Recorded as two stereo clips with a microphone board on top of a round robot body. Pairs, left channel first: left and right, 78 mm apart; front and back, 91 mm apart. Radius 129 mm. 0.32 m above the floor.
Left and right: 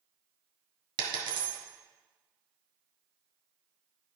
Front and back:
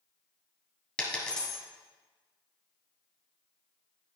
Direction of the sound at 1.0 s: 80° right.